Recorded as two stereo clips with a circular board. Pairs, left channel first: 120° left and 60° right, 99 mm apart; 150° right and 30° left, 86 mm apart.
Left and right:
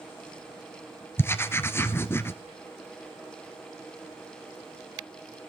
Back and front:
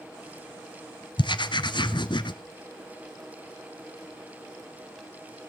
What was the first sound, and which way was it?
Writing, 175° right.